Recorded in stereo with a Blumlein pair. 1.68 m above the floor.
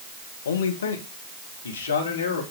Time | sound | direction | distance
0.5 | a man speaking | 65° left | 2 m